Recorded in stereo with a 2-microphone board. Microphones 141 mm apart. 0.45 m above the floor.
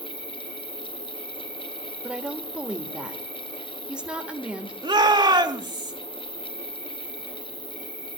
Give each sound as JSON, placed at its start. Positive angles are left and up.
{"t": 0.0, "sound": "an insect", "side_deg": -5, "distance_m": 7.0}
{"t": 2.0, "sound": "a woman speaking", "side_deg": -10, "distance_m": 1.7}
{"t": 4.8, "sound": "a shout", "side_deg": -35, "distance_m": 2.0}